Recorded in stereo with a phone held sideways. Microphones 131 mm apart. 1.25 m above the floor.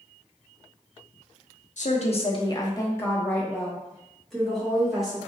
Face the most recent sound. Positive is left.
turn(degrees=-5)  # may be behind; listen again after turning